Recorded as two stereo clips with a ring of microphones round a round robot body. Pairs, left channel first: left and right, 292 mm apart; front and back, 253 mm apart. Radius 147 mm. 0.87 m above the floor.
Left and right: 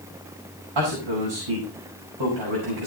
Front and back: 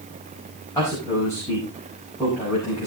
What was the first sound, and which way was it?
A man speaking, 80° right.